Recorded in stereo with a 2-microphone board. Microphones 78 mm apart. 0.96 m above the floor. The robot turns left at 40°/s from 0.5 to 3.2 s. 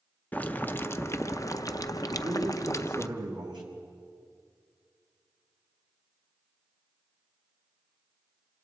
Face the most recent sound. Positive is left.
turn(degrees=-75)